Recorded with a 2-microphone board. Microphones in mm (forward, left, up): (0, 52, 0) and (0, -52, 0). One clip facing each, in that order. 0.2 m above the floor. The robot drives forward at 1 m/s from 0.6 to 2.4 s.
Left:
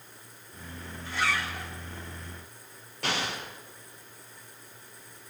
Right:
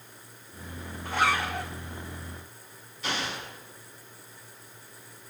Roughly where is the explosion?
Left.